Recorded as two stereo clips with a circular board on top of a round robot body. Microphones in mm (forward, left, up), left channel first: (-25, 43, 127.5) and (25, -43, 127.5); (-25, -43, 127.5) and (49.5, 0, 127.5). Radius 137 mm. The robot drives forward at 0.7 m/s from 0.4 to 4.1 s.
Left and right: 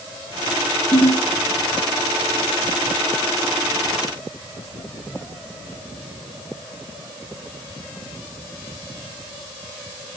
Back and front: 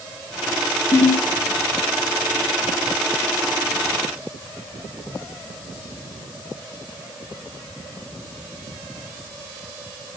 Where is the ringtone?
175° right, 6.5 m.